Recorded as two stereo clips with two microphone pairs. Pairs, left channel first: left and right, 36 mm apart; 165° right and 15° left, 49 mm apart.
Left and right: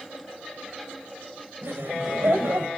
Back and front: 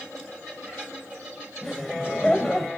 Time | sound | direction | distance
1.6 | laughter | 85° right | 4 m